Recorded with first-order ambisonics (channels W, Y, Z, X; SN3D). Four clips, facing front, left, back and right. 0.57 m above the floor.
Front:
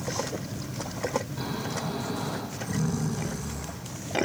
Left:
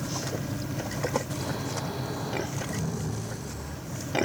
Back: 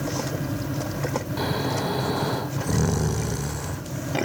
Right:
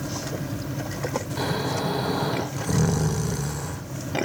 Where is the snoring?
140° right, 0.9 m.